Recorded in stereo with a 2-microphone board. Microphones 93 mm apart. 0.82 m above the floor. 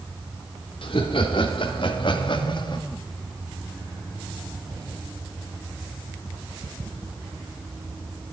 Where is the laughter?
70° left (ahead or behind), 3 m; by 2.8 s 55° left (ahead or behind), 1.6 m.